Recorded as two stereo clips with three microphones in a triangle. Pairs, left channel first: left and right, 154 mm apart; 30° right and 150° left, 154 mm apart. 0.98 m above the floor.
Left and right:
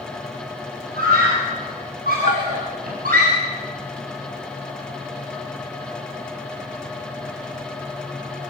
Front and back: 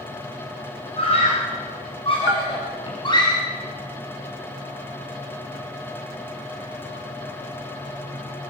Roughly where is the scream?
Right.